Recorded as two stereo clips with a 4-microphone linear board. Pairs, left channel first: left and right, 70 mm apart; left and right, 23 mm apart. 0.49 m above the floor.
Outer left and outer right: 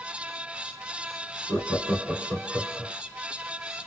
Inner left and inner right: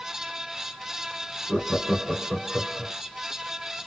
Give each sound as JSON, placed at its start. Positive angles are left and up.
{"t": 1.5, "sound": "laughter", "side_deg": -20, "distance_m": 1.3}